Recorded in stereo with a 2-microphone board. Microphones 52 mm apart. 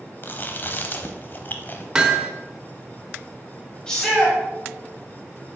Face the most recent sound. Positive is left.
turn(degrees=15)  # may be behind; listen again after turning